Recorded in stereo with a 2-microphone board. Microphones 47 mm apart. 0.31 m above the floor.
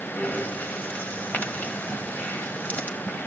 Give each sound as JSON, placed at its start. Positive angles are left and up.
{"t": 0.2, "sound": "breathing", "side_deg": 40, "distance_m": 1.2}